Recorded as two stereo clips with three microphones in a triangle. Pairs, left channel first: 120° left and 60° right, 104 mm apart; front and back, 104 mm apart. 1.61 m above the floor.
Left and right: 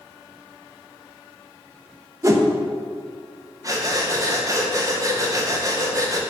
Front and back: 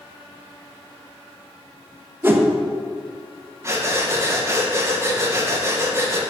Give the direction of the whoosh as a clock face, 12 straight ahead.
4 o'clock.